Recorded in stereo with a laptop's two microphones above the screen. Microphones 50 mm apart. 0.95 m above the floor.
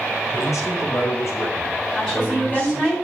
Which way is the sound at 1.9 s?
5° left (ahead or behind).